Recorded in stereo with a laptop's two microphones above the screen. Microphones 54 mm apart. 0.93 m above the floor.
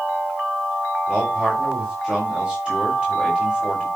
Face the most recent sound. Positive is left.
turn(degrees=-15)  # may be behind; listen again after turning